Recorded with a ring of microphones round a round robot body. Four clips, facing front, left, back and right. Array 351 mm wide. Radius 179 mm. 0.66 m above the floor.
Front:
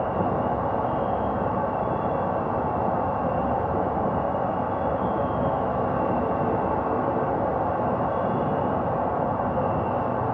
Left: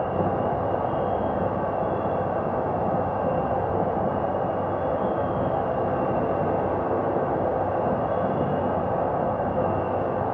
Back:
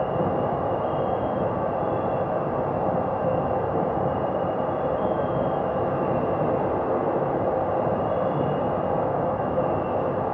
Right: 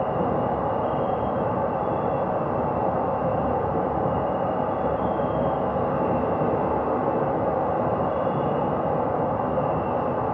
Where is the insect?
120° right, 0.9 m.